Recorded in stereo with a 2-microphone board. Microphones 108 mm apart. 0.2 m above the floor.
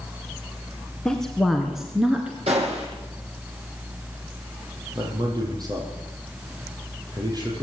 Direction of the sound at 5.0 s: 40° right (ahead or behind).